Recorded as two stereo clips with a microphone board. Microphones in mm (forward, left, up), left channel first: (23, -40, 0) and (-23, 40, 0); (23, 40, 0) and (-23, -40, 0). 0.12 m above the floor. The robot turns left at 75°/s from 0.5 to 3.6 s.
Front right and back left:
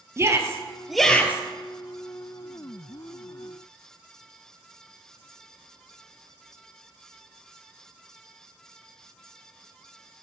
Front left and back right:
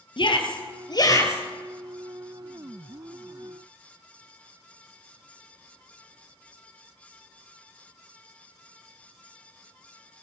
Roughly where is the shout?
Ahead left.